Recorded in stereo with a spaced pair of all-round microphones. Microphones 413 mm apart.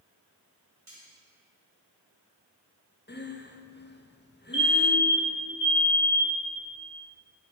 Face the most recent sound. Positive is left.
turn(degrees=30)  # may be behind; listen again after turning